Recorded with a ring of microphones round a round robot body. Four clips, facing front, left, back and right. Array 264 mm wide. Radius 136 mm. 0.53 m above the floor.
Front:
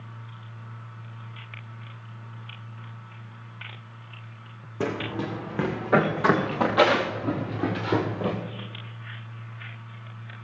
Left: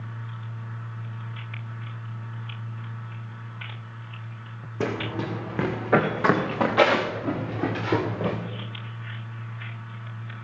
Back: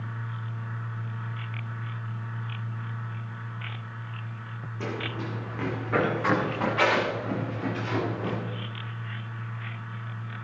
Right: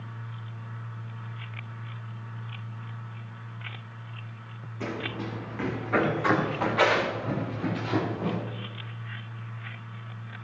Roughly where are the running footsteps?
Ahead left.